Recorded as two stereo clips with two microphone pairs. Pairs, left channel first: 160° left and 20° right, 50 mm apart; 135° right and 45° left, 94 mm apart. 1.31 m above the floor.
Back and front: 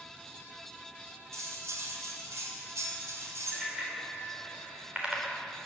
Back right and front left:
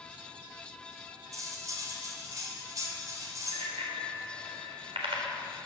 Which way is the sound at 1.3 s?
10° right.